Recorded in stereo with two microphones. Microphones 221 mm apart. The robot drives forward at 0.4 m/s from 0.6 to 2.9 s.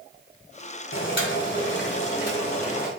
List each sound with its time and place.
0.9 s boiling: 65° left (ahead or behind), 1.5 m; by 2.9 s 45° left (ahead or behind), 1.9 m